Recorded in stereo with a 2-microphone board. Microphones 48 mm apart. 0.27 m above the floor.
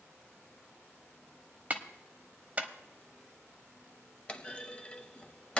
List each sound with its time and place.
1.7 s a clap: 30° right (ahead or behind), 1.0 m
4.3 s a clunk: 25° left (ahead or behind), 0.7 m